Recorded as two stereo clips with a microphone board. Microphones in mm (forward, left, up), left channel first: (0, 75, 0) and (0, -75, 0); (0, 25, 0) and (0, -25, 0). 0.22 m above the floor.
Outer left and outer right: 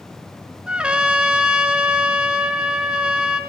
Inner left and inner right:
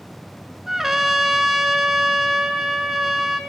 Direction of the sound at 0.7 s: 5° right (ahead or behind).